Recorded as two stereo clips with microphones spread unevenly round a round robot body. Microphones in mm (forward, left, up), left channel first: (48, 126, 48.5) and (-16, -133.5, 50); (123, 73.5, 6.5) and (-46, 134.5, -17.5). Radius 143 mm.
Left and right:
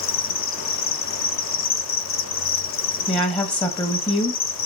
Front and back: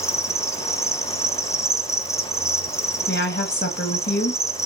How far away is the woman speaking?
About 1.0 m.